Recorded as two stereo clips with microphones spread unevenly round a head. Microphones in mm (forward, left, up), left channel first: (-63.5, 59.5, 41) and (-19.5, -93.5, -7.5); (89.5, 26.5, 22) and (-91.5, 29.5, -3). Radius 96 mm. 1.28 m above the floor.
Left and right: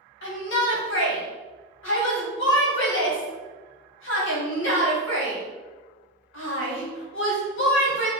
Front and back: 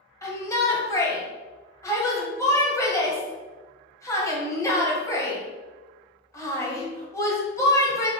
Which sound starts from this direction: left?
A shout, at 0.2 s.